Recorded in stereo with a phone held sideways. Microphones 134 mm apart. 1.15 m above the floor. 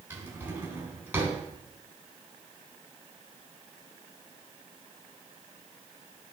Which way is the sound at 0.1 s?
15° right (ahead or behind).